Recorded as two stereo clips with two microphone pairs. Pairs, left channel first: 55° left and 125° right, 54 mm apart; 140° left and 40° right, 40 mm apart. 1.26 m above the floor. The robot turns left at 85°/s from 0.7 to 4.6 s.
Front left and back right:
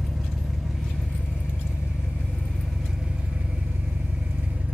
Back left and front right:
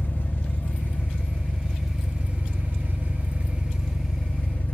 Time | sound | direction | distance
0.0 | an engine running | 145° left | 0.8 m